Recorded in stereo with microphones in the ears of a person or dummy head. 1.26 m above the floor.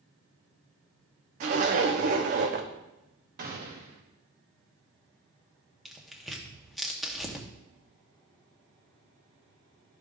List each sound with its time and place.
1.4 s a zipper: 45° right (ahead or behind), 0.9 m
3.4 s a gunshot: 45° right (ahead or behind), 1.1 m
5.8 s tearing paper: centre (ahead or behind), 0.9 m